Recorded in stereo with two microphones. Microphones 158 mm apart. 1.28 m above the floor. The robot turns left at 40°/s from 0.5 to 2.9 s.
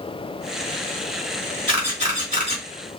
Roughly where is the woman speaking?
I don't hear a woman speaking.